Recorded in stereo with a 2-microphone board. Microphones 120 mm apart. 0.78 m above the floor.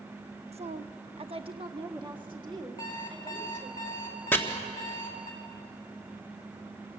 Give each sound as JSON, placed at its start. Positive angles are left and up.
{"t": 0.5, "sound": "a woman speaking", "side_deg": -55, "distance_m": 0.7}
{"t": 2.8, "sound": "an alarm clock", "side_deg": 40, "distance_m": 4.0}
{"t": 4.3, "sound": "chopping", "side_deg": 15, "distance_m": 1.4}